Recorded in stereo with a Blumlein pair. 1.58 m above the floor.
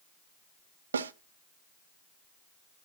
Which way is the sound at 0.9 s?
70° right.